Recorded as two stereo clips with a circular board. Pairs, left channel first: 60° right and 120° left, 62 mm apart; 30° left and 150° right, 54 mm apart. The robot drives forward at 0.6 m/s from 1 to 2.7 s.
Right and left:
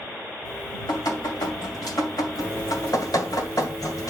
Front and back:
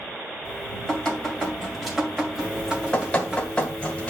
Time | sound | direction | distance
0.5 | dripping | 50° right | 2.5 m
2.4 | dripping | 40° right | 2 m